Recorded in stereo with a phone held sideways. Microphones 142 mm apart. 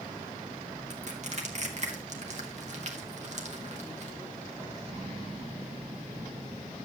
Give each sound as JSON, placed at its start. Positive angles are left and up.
{"t": 0.9, "sound": "crushing", "side_deg": -50, "distance_m": 1.8}